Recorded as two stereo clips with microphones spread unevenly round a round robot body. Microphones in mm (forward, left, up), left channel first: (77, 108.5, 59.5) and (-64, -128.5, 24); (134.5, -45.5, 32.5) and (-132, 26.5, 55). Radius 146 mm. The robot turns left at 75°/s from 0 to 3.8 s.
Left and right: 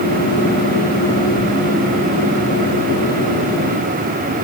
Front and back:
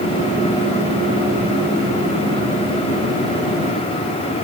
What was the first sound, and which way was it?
Only background noise.